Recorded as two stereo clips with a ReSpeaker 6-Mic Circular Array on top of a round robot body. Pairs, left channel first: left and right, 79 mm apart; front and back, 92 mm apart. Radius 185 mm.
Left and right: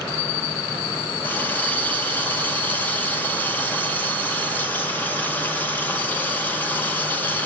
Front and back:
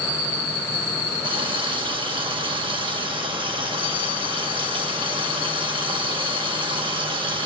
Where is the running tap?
155° left, 1.9 m.